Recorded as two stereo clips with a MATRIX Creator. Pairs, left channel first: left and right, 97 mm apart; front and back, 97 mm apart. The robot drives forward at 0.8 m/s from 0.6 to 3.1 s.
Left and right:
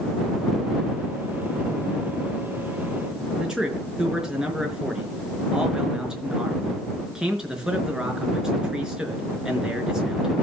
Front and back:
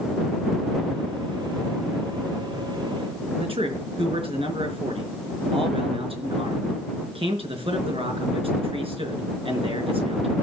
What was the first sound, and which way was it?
A man speaking, 170° right.